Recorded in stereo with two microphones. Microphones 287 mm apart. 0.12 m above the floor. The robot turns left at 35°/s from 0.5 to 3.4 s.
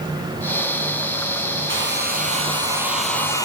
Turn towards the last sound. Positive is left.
turn(degrees=170)